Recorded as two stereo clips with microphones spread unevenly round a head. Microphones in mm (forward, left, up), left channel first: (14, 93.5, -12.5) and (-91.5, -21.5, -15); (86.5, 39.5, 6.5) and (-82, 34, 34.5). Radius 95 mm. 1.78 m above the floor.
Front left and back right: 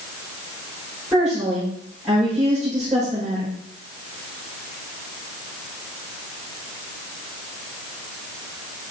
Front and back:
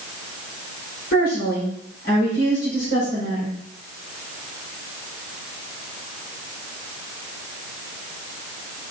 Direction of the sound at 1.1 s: 45° right.